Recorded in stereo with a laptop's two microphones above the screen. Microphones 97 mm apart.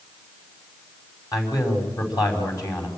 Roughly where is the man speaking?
Left.